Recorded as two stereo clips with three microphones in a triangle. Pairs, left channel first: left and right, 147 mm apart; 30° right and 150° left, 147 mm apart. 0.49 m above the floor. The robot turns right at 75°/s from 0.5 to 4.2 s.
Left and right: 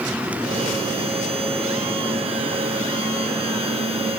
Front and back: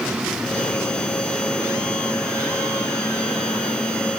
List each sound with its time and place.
Only background noise.